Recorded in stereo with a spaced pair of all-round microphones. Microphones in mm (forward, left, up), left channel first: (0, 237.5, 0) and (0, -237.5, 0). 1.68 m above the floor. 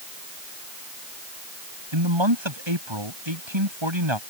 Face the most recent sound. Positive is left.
turn(degrees=-90)